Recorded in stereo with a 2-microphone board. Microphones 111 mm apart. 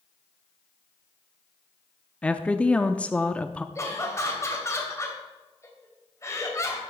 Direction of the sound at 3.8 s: 25° left (ahead or behind).